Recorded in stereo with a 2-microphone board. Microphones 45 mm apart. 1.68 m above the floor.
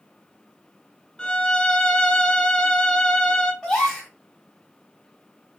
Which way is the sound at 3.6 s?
10° left (ahead or behind).